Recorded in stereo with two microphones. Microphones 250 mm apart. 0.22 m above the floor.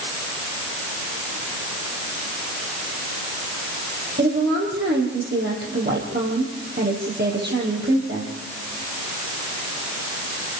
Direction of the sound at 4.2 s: 40° right (ahead or behind).